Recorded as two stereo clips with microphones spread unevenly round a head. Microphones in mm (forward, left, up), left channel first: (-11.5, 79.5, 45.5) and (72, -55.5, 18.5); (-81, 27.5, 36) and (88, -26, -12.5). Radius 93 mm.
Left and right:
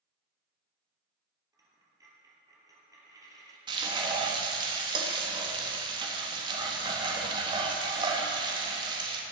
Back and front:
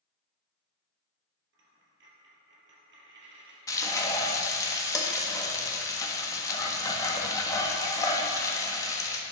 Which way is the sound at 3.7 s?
120° right.